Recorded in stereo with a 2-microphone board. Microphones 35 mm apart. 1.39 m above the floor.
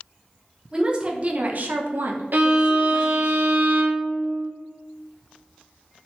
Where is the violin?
60° right (ahead or behind), 0.6 m.